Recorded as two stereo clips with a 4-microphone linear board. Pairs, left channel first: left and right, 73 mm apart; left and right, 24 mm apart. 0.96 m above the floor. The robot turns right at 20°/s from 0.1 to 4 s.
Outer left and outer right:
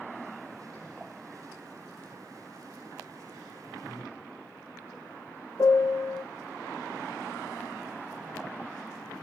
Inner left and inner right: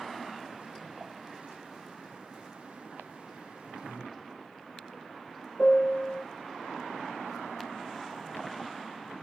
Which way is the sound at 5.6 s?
55° left (ahead or behind).